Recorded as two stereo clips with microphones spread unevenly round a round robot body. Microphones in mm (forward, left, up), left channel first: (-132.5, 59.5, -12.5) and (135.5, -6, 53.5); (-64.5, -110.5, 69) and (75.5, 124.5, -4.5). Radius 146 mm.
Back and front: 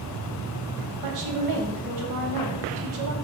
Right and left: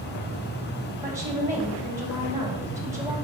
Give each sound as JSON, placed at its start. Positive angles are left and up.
{"t": 1.0, "sound": "a woman speaking", "azimuth_deg": -15, "distance_m": 2.0}